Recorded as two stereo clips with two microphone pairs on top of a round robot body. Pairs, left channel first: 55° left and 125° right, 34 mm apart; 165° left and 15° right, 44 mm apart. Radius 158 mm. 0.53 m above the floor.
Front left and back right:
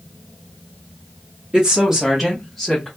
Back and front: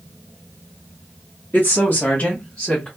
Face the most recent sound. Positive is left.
turn(degrees=115)